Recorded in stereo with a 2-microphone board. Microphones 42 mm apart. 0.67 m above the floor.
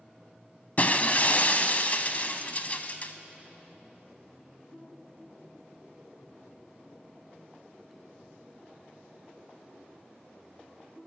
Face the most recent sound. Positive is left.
turn(degrees=40)  # may be behind; listen again after turning